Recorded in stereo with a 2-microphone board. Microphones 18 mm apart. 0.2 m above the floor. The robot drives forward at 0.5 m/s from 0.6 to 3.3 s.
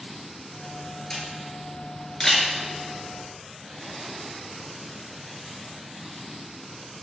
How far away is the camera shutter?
About 2.5 m.